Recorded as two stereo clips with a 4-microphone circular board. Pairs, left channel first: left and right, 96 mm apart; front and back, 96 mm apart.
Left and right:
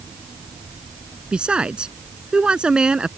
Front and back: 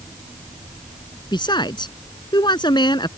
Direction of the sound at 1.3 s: 10° right.